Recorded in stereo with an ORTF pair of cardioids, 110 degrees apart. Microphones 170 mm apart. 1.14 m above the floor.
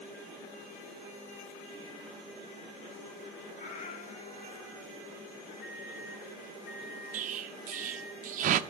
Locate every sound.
3.6 s a cat meowing: 50° left, 1.8 m; by 4.9 s straight ahead, 0.5 m
5.6 s a microwave: 70° left, 1.5 m
7.1 s an explosion: 50° right, 0.6 m